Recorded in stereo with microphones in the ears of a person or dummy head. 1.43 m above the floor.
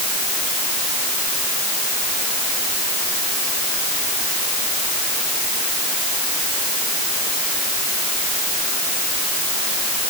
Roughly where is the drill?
No drill in this recording.